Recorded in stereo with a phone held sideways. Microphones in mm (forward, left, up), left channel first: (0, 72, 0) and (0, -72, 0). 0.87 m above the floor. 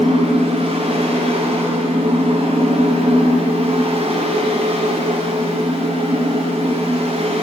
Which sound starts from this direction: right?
A fan, at 0.0 s.